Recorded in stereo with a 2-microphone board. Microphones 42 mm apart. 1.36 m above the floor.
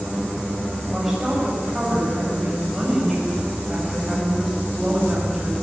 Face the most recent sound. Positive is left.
turn(degrees=-5)  # may be behind; listen again after turning